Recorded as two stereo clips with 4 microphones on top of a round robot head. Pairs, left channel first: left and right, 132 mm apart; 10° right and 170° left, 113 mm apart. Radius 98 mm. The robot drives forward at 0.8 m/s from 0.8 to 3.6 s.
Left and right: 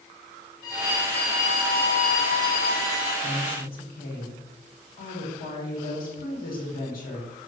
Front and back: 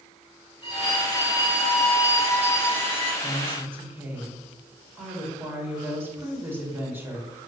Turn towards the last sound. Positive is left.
turn(degrees=100)